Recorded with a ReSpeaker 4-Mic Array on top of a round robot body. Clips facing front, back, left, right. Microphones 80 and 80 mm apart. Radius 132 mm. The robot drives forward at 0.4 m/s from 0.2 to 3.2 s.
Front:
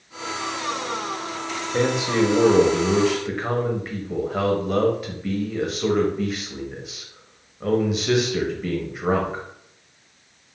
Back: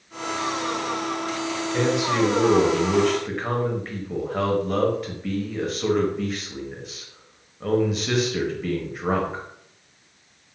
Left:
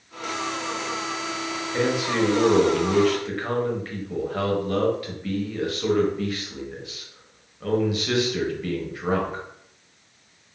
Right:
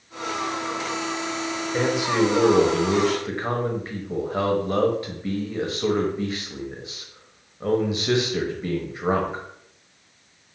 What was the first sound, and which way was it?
A man speaking, 30° right.